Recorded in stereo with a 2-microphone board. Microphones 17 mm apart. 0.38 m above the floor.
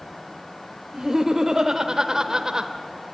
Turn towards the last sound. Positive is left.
turn(degrees=-30)  # may be behind; listen again after turning